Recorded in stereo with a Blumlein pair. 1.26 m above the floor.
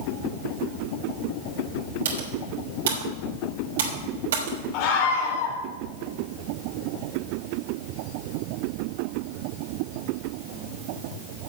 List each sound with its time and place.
2.0 s typing on a keyboard: 60° right, 3.5 m
4.7 s a scream: 40° left, 4 m